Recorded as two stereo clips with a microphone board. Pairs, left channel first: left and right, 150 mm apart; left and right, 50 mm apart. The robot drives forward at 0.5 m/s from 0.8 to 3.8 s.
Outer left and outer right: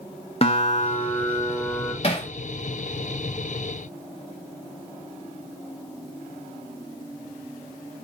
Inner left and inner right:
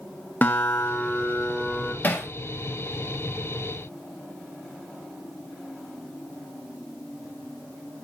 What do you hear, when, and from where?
0.4 s a guitar: 40° left (ahead or behind), 0.8 m; by 1.9 s 25° left (ahead or behind), 1.3 m
2.0 s hammering: 40° left (ahead or behind), 1.1 m; by 2.3 s 35° left (ahead or behind), 1.2 m